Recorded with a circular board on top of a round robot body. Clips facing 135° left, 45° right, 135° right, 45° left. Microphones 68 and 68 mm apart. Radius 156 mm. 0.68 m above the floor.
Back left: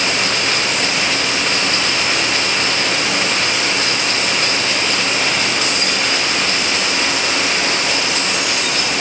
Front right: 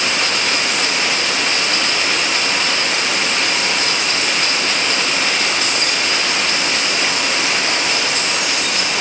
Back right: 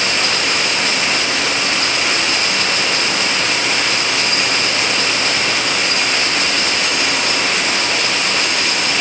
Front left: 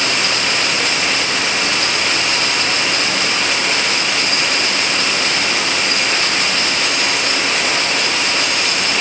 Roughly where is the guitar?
No guitar in this recording.